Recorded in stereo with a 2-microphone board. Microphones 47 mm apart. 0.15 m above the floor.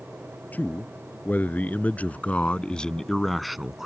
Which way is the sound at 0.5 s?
40° left (ahead or behind).